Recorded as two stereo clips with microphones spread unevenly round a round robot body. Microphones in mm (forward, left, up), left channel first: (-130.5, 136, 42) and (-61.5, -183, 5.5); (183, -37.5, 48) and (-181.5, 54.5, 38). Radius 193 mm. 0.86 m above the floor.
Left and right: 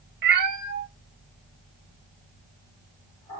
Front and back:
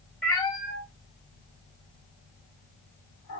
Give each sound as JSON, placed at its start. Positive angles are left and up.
{"t": 0.2, "sound": "a cat meowing", "azimuth_deg": -95, "distance_m": 0.5}